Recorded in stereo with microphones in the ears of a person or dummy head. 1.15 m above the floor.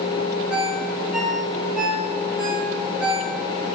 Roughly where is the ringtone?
Centre.